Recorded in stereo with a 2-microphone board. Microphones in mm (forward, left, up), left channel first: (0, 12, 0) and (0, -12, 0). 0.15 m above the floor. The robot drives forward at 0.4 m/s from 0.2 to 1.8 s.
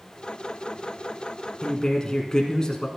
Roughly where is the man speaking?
Left.